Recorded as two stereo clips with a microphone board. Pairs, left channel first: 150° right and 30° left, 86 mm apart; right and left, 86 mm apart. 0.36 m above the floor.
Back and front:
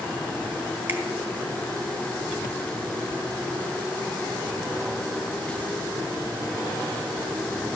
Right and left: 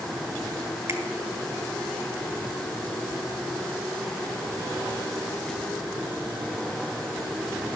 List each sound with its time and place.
0.9 s a finger snap: 75° left, 1.4 m